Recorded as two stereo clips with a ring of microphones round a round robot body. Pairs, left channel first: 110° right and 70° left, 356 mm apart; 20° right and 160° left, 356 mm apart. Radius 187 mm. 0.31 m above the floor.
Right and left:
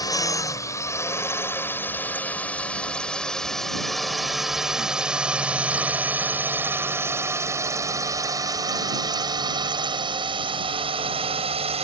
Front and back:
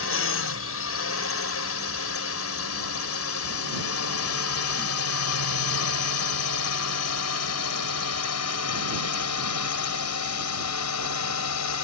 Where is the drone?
40° right; by 11.8 s straight ahead.